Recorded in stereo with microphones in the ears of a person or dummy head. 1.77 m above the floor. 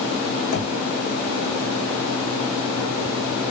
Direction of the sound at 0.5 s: 75° left (ahead or behind).